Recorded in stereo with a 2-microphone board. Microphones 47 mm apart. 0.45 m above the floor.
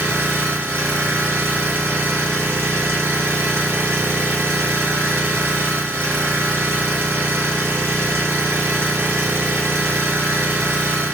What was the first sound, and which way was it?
An engine running, 70° right (ahead or behind).